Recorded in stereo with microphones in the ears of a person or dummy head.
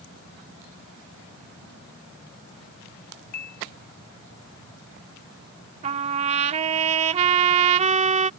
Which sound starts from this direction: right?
A trumpet, at 5.8 s.